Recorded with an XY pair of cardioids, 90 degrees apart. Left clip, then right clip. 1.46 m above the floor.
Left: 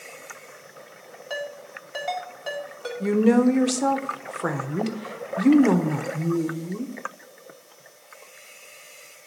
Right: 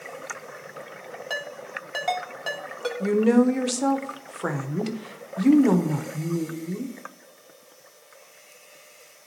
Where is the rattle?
I don't hear a rattle.